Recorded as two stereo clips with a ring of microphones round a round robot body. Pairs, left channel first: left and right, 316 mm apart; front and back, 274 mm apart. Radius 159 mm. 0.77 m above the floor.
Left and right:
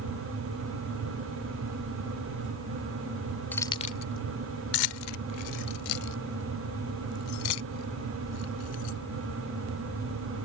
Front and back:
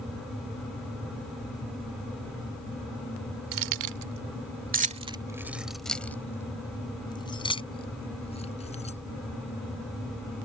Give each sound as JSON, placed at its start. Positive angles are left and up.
{"t": 3.5, "sound": "keys jangling", "azimuth_deg": 175}